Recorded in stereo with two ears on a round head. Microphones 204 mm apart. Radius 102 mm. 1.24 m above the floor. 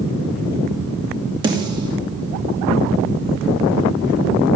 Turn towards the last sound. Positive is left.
turn(degrees=-20)  # may be behind; listen again after turning